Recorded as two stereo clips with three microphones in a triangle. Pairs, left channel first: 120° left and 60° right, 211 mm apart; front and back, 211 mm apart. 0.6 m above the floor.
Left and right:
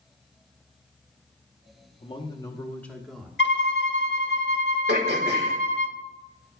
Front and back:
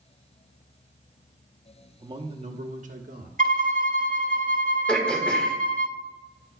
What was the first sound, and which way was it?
A man speaking, 130° left.